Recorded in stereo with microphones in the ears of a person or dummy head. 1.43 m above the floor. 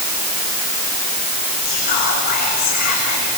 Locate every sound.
1.6 s whispering: 50° left (ahead or behind), 7 m